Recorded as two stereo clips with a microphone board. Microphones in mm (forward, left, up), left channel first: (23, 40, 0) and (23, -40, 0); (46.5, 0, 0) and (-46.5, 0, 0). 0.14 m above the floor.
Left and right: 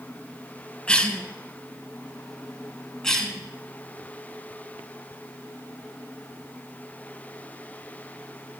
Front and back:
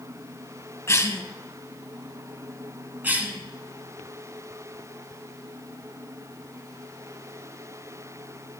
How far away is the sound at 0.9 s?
About 1.2 m.